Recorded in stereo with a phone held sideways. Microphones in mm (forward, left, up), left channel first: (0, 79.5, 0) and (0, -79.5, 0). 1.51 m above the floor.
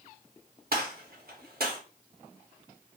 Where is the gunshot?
70° right (ahead or behind), 0.7 m.